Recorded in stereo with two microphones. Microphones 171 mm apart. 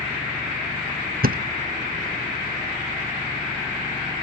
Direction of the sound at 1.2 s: 65° right (ahead or behind).